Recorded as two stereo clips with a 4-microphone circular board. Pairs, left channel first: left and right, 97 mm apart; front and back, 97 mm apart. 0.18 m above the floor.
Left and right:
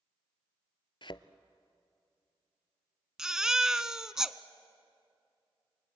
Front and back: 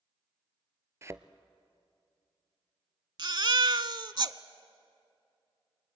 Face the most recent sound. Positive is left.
turn(degrees=-170)